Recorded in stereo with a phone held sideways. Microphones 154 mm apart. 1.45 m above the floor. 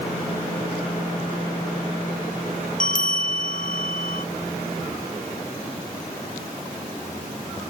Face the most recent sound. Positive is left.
turn(degrees=60)  # may be behind; listen again after turning